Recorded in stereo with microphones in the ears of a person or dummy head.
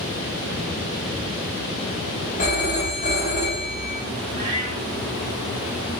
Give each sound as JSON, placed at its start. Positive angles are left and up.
{"t": 2.4, "sound": "a phone ringing", "side_deg": 25, "distance_m": 1.2}
{"t": 4.3, "sound": "a cat meowing", "side_deg": -40, "distance_m": 1.2}